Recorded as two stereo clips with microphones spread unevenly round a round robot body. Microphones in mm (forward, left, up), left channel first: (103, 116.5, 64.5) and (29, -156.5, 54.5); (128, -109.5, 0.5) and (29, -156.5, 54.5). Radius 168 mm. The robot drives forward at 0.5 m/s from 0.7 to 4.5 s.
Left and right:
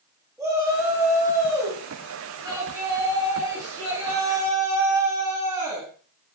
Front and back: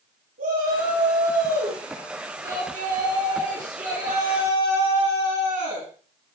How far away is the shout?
About 8 m.